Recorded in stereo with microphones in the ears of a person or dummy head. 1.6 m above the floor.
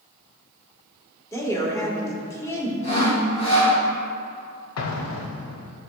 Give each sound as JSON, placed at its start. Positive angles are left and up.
{"t": 1.3, "sound": "a woman speaking", "side_deg": 20, "distance_m": 1.4}
{"t": 2.8, "sound": "sawing", "side_deg": 40, "distance_m": 2.5}
{"t": 4.8, "sound": "an explosion", "side_deg": 80, "distance_m": 0.6}